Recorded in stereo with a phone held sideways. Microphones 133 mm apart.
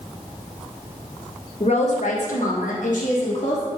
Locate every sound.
1.6 s a woman speaking: 50° left (ahead or behind), 0.8 m; by 3.6 s 60° left (ahead or behind), 1.4 m